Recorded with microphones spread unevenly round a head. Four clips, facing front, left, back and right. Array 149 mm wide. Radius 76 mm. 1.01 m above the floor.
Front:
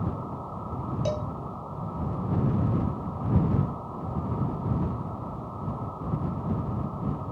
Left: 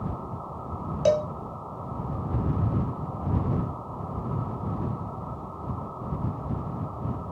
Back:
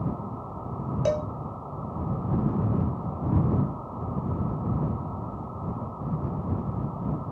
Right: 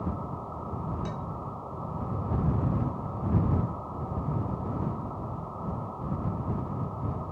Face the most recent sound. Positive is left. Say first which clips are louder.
# left 15 dB, back 5 dB
turn(degrees=110)